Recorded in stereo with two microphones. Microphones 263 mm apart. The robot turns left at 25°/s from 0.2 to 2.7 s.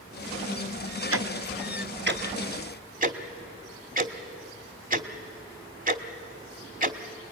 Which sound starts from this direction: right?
Ticking, at 1.1 s.